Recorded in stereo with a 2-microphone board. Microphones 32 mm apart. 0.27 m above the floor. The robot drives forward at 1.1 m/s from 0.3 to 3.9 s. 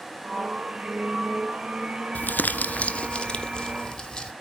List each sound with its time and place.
2.1 s crumpling: 70° left (ahead or behind), 0.6 m; by 4.3 s 20° left (ahead or behind), 1.8 m